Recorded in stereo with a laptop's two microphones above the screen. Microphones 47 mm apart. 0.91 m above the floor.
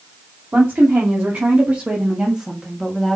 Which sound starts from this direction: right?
A woman speaking, at 0.5 s.